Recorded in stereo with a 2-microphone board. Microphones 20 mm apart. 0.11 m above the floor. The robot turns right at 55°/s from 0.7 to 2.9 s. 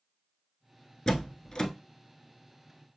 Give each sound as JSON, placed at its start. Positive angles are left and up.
{"t": 1.1, "sound": "a door slam", "side_deg": 35, "distance_m": 0.9}